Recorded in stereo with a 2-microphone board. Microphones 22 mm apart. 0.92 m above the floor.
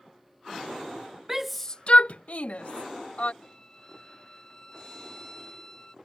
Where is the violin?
25° left (ahead or behind).